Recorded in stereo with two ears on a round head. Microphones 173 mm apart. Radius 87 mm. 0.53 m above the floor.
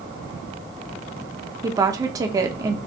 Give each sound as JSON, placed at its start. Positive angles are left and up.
{"t": 1.6, "sound": "a woman speaking", "side_deg": -20, "distance_m": 0.7}